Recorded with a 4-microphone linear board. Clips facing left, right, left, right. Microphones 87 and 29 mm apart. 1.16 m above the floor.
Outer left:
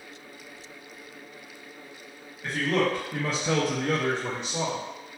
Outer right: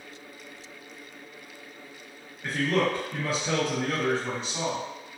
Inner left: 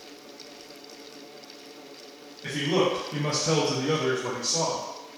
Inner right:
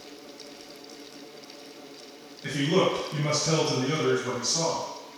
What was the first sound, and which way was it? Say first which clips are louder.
A man speaking: even, inner right 1 dB; 5° right (ahead or behind).